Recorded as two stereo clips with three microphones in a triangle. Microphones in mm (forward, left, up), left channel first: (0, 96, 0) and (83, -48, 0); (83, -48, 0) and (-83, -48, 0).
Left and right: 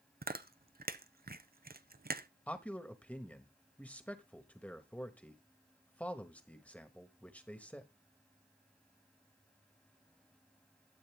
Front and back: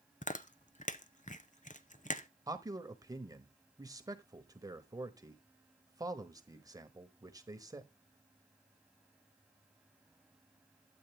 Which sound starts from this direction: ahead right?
Chewing, at 0.2 s.